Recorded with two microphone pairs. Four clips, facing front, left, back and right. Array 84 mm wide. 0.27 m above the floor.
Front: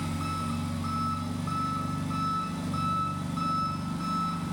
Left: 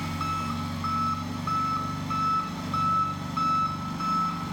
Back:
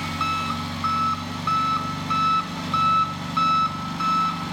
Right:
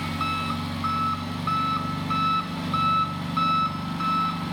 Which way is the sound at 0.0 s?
170° right.